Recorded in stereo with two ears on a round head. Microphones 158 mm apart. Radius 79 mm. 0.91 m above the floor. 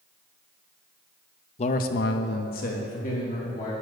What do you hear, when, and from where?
1.6 s a man speaking: 35° left (ahead or behind), 0.5 m; by 3.7 s 40° left (ahead or behind), 1.8 m